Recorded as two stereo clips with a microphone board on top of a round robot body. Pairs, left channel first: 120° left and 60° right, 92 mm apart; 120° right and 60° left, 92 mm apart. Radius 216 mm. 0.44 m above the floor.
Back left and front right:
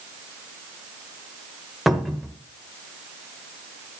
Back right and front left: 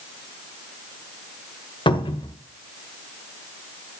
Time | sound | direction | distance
1.9 | a cupboard door | 150° right | 1.4 m